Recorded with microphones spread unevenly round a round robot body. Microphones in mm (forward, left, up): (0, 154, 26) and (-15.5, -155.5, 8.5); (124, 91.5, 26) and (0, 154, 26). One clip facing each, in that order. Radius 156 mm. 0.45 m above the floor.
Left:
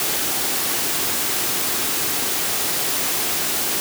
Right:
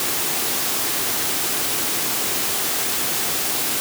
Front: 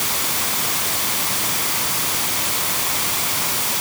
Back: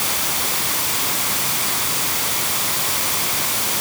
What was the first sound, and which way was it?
Only background noise.